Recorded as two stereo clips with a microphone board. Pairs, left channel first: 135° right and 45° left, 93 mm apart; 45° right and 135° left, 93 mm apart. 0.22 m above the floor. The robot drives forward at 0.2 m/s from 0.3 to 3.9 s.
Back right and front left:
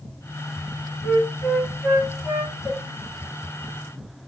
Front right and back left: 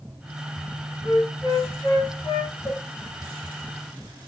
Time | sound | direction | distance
1.0 | a flute | 55° right | 1.2 m
2.6 | a cowbell | 80° right | 0.9 m